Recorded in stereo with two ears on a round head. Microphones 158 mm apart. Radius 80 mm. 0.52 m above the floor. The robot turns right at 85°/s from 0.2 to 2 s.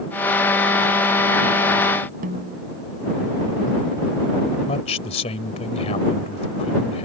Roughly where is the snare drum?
Right.